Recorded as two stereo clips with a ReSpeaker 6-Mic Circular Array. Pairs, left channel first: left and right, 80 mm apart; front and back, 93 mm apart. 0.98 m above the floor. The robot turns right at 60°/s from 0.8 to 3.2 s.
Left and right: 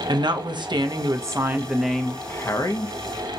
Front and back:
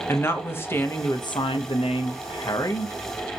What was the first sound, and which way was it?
A woman speaking, 65° right.